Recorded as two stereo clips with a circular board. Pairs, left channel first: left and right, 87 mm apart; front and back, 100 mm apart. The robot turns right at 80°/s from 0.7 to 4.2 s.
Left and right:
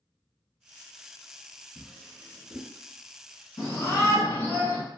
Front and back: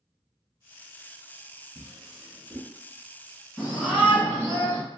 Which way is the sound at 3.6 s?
75° left.